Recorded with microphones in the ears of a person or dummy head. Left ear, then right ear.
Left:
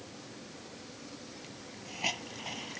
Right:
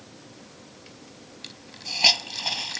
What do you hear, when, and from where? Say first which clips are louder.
1.4 s a hiss: right 10 dB; 55° right (ahead or behind)